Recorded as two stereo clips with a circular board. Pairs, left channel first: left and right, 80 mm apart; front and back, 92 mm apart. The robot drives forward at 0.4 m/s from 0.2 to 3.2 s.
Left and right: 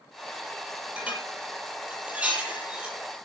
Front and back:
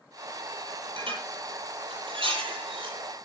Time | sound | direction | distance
1.0 | dishes clattering | 165° right | 8 m